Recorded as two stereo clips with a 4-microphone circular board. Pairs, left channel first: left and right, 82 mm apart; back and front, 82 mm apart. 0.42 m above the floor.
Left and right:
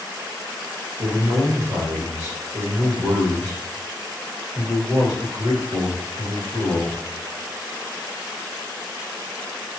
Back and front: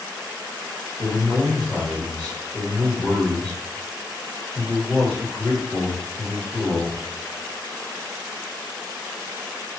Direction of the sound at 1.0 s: 110° right.